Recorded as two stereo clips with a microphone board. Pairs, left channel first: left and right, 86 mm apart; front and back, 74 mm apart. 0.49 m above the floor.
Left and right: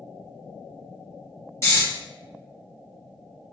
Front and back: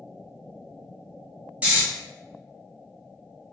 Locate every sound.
1.6 s snoring: 125° left, 1.3 m